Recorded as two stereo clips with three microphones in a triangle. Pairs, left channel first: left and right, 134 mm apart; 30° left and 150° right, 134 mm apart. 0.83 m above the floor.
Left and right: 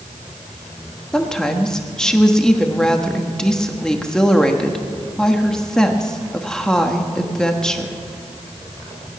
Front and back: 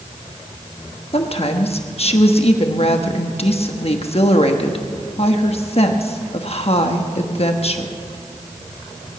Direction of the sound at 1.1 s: 5° left.